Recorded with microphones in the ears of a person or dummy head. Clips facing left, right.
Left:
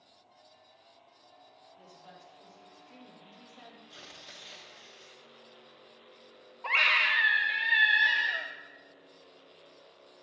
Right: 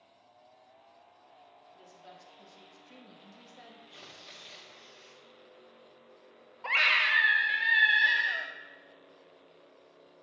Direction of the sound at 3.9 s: Centre (ahead or behind).